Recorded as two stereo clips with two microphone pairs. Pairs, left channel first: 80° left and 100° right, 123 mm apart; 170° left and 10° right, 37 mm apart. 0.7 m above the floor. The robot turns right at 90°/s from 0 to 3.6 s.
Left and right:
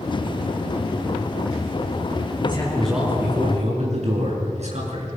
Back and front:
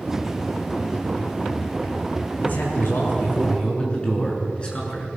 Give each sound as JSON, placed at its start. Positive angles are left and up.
{"t": 2.4, "sound": "a man speaking", "azimuth_deg": 125, "distance_m": 7.5}